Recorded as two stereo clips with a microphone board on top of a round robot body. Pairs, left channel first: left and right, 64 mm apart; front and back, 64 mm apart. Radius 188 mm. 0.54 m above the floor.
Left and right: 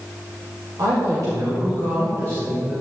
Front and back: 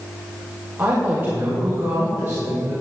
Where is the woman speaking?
115° right, 2.5 m; by 2.7 s 120° right, 4.5 m.